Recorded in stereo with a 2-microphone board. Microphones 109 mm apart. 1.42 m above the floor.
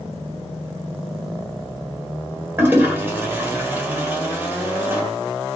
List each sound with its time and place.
2.6 s a toilet flushing: 15° right (ahead or behind), 1.6 m